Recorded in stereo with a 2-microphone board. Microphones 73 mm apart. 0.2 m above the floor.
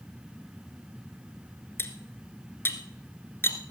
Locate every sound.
1.8 s cutlery clinking: 30° left (ahead or behind), 1.6 m